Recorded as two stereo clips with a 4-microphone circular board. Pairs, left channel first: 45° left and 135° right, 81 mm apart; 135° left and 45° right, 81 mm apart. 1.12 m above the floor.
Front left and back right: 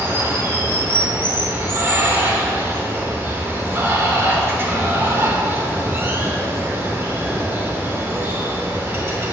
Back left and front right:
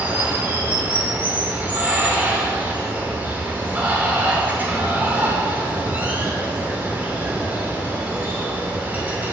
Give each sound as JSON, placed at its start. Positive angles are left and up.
{"t": 0.0, "sound": "running water", "azimuth_deg": -100, "distance_m": 0.9}